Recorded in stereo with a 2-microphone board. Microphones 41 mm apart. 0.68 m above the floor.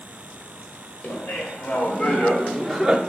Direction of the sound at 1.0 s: 50° left (ahead or behind).